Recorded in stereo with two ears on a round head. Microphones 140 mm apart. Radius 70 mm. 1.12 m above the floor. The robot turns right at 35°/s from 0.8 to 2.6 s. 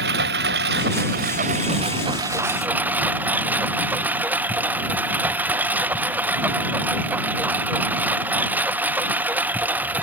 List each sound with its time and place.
0.0 s a lawn mower: 75° right; by 10.0 s 10° right